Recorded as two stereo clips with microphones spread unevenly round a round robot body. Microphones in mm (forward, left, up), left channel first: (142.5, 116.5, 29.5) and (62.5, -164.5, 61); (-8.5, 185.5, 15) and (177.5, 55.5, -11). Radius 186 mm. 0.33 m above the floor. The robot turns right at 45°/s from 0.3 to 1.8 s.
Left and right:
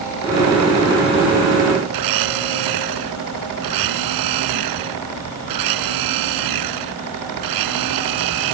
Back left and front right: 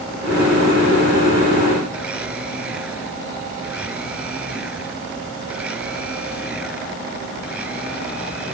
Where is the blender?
120° right.